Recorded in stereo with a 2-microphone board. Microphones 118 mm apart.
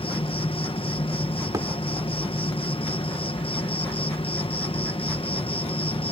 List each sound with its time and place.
0.0 s an insect: 50° left (ahead or behind)
1.5 s a thud: 30° right (ahead or behind)